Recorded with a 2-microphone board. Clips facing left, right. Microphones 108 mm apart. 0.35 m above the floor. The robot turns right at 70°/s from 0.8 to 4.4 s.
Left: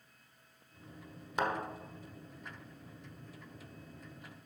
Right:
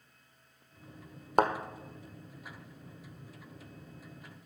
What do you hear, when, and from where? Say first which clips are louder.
1.4 s a thud: right 7 dB; 55° right (ahead or behind), 0.9 m; by 1.5 s 65° right (ahead or behind), 0.9 m